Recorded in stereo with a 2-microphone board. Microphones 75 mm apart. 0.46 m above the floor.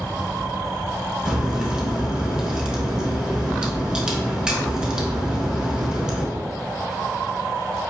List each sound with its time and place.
1.2 s a crack: 10° right (ahead or behind), 0.9 m